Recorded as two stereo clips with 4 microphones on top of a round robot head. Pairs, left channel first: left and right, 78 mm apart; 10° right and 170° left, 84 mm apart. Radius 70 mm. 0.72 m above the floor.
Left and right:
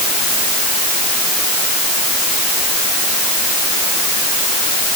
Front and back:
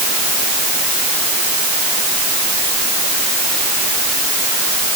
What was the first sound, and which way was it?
Only background noise.